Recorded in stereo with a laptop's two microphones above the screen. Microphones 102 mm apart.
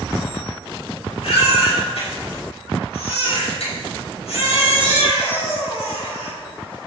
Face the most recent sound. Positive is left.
turn(degrees=85)